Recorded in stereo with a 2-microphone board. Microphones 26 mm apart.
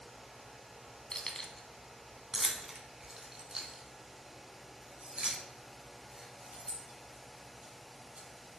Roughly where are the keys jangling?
Left.